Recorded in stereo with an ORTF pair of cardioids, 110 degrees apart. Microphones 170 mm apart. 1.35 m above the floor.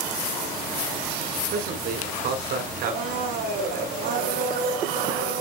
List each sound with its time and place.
1.5 s a man speaking: 70° right, 4.5 m
2.8 s a blender: 65° right, 3.5 m